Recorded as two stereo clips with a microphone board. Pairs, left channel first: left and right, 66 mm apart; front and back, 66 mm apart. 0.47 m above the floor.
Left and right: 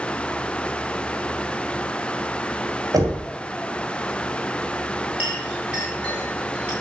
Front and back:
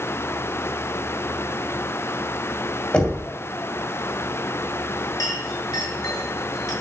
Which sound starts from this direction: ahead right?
A clink, at 5.2 s.